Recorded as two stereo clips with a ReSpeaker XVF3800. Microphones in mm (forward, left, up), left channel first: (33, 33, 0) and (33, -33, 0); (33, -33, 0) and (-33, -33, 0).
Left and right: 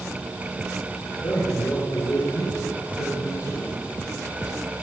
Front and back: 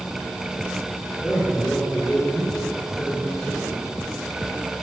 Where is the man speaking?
95° left, 6 m; by 3.8 s 75° left, 7 m.